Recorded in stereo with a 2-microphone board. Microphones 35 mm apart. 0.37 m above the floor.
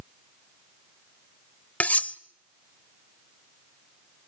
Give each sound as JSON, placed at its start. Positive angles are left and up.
{"t": 1.8, "sound": "cutlery clinking", "side_deg": 50, "distance_m": 0.6}